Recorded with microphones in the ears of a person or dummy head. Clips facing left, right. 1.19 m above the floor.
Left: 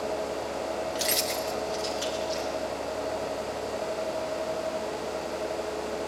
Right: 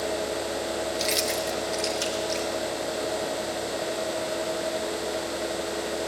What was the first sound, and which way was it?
Keys jangling, 15° left (ahead or behind).